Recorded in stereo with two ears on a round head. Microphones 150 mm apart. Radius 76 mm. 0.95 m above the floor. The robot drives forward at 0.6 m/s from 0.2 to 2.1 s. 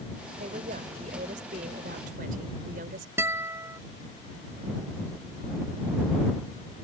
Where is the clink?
No clink in this recording.